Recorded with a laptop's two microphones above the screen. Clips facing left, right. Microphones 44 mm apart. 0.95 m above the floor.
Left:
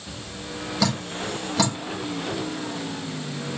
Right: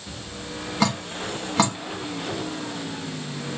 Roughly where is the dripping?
Right.